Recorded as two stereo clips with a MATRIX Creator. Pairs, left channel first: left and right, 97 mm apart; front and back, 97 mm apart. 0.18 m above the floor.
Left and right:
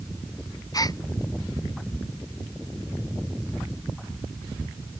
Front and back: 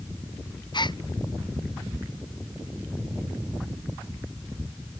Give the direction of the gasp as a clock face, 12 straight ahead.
11 o'clock.